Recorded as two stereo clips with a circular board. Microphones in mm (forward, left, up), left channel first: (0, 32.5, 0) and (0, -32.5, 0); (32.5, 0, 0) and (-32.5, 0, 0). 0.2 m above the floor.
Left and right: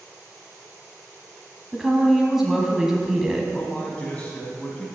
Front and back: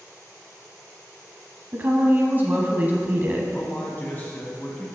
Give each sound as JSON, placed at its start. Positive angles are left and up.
{"t": 1.7, "sound": "a woman speaking", "azimuth_deg": -170, "distance_m": 1.1}
{"t": 3.5, "sound": "a man speaking", "azimuth_deg": 40, "distance_m": 1.5}